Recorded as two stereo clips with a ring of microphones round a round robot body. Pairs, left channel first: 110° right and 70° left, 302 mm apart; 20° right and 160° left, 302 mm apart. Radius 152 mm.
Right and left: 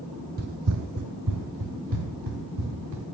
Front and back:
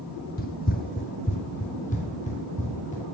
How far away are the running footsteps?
About 0.6 m.